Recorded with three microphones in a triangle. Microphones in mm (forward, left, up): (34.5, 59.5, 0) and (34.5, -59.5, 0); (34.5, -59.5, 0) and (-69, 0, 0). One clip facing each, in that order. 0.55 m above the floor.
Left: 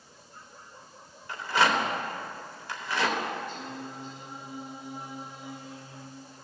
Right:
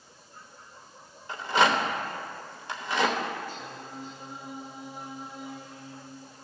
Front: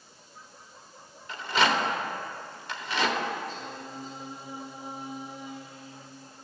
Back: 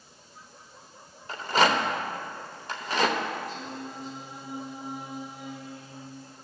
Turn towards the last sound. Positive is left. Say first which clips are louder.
# left 2 dB, back 2 dB
turn(degrees=160)